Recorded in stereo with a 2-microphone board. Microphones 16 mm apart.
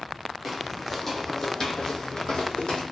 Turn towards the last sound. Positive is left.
turn(degrees=75)  # may be behind; listen again after turning